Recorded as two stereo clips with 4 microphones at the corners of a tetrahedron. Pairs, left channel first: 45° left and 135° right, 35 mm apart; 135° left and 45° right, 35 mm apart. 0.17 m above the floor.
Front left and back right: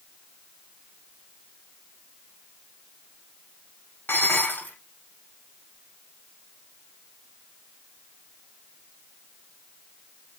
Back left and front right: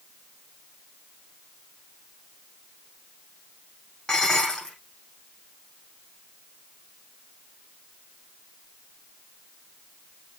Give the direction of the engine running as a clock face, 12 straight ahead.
I don't hear an engine running.